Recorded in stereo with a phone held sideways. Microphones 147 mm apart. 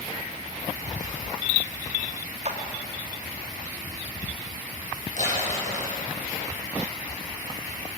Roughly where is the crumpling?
Left.